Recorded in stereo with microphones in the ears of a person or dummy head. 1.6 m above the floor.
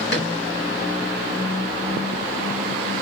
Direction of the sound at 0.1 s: 60° left (ahead or behind).